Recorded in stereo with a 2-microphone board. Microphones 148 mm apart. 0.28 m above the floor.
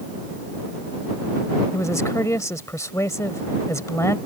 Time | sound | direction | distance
1.7 | a woman speaking | 20° left (ahead or behind) | ?